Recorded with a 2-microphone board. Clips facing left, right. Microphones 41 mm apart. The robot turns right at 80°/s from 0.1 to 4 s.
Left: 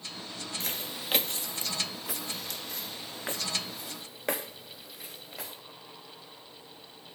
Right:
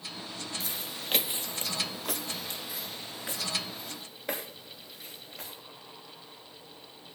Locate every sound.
0.6 s footsteps: 60° left (ahead or behind), 0.7 m; by 5.5 s 75° left (ahead or behind), 3.5 m